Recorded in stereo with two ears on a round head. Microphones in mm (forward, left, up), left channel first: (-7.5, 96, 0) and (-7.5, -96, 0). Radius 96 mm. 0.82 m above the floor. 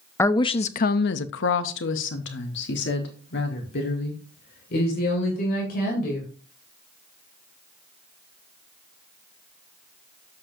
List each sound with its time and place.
0.2 s a woman speaking: 10° left (ahead or behind), 0.6 m; by 6.3 s 45° left (ahead or behind), 3 m